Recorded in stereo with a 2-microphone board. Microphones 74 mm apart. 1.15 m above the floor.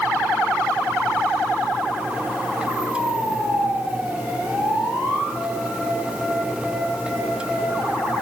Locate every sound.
Only background noise.